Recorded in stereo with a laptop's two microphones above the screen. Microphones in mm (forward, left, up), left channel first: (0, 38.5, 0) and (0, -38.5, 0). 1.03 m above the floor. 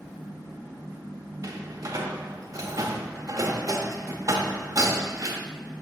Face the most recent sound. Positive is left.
turn(degrees=-45)  # may be behind; listen again after turning